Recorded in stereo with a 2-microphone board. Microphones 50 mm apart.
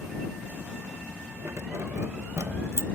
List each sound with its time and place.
1.4 s keys jangling: 80° right; by 2.9 s 70° right (ahead or behind)